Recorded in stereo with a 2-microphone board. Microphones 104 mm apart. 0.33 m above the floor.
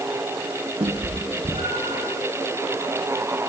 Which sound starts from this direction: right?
A cat meowing, at 0.8 s.